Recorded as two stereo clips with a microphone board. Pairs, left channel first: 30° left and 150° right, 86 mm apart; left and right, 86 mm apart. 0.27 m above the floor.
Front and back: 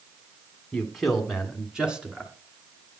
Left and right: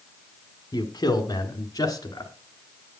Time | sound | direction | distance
0.7 | a man speaking | 115° left | 1.7 m